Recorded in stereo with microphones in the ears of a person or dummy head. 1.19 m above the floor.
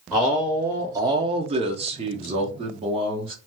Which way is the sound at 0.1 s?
5° right (ahead or behind).